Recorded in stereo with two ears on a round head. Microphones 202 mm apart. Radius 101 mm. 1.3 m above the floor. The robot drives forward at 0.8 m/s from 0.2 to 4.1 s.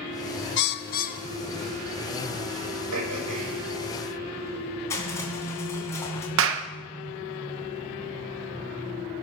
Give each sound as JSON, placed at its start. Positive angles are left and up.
{"t": 0.6, "sound": "a bird", "side_deg": 55, "distance_m": 0.7}
{"t": 2.9, "sound": "throat clearing", "side_deg": -85, "distance_m": 6.0}
{"t": 4.9, "sound": "crushing", "side_deg": 10, "distance_m": 3.0}
{"t": 6.4, "sound": "a clap", "side_deg": -65, "distance_m": 1.1}